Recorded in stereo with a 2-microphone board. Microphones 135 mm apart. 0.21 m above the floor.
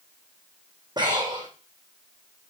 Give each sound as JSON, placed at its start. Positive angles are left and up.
{"t": 1.0, "sound": "breathing", "side_deg": -30, "distance_m": 3.0}